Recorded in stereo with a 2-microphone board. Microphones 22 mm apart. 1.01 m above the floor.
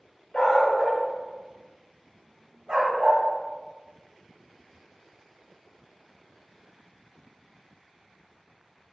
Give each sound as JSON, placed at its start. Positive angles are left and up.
{"t": 0.3, "sound": "a dog barking", "side_deg": 35, "distance_m": 0.8}